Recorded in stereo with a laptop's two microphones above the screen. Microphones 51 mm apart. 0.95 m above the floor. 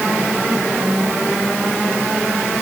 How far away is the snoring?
I don't hear snoring.